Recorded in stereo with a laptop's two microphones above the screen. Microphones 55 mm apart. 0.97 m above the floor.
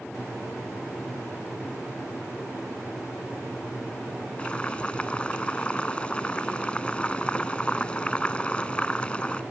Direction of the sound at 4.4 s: 20° left (ahead or behind).